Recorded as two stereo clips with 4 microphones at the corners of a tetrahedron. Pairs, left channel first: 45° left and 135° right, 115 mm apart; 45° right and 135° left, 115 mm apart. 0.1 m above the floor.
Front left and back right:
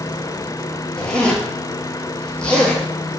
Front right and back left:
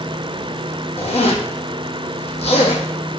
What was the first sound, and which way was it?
A zipper, 35° right.